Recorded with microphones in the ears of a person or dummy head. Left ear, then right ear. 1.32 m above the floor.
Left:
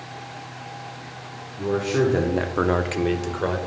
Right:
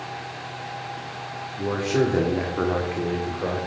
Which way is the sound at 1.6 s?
15° right (ahead or behind).